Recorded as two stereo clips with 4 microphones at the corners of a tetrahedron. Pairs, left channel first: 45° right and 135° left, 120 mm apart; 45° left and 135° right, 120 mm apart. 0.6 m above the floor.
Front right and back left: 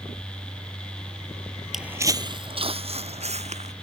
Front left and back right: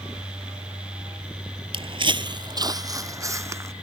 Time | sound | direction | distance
1.7 | footsteps | 140° right | ?